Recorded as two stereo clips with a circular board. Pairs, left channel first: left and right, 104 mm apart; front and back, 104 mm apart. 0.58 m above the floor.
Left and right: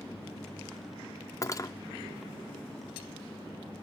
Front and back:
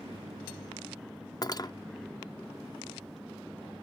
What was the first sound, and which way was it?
Cutlery clinking, 40° left.